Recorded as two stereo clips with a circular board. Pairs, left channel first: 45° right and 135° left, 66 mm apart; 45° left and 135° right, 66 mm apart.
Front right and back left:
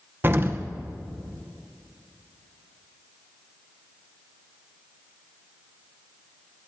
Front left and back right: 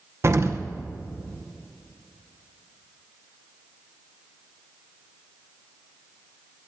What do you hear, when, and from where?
0.2 s an explosion: 175° right, 0.8 m